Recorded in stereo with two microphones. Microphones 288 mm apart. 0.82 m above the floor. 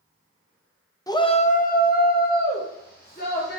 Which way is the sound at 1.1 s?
10° left (ahead or behind).